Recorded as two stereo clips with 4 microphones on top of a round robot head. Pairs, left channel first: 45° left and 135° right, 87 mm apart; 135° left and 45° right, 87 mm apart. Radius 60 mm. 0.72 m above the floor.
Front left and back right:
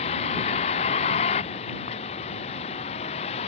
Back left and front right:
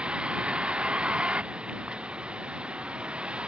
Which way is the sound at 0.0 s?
40° left.